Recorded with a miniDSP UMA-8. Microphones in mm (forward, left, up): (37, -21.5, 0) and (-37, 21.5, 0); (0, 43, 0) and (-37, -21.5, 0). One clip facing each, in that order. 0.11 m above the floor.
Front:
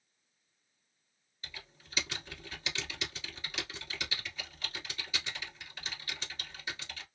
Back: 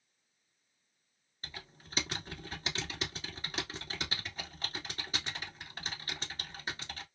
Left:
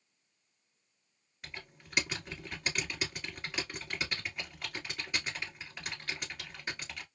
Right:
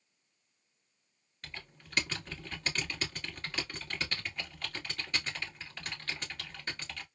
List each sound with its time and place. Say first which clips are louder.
1.4 s typing on a keyboard: back 2 dB, left 1 dB; 135° left, 1.5 m